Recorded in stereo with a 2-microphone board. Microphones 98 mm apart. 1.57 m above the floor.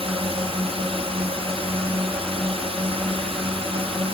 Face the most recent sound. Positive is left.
turn(degrees=-70)  # may be behind; listen again after turning